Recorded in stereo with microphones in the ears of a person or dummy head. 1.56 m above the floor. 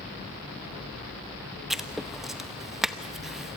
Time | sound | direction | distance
1.7 | writing | 5° right (ahead or behind) | 0.9 m